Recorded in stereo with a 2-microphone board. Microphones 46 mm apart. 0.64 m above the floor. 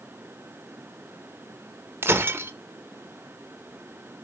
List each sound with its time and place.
2.0 s breaking glass: 60° right (ahead or behind), 0.9 m